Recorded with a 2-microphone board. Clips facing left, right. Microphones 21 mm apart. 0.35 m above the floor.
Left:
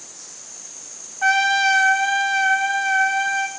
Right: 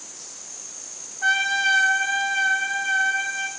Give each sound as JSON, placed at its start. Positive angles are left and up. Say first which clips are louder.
{"t": 1.2, "sound": "a trumpet", "louder": "left 4 dB", "side_deg": 55, "distance_m": 1.0}